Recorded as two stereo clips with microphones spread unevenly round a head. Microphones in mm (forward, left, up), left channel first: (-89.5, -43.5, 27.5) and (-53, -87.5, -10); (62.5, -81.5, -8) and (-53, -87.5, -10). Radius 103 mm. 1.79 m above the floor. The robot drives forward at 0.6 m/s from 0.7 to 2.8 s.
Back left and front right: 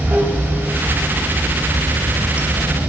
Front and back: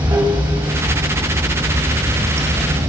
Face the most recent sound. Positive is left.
turn(degrees=-135)